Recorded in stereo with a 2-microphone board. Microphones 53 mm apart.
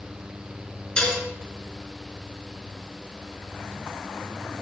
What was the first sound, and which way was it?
Dishes clattering, 15° left (ahead or behind).